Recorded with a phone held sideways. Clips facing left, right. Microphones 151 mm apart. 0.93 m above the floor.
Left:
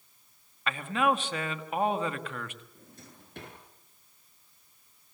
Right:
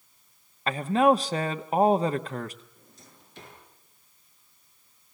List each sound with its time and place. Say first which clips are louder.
0.7 s a man speaking: right 7 dB; 35° right (ahead or behind), 1.2 m
2.8 s a drawer: left 3 dB; 55° left (ahead or behind), 6.5 m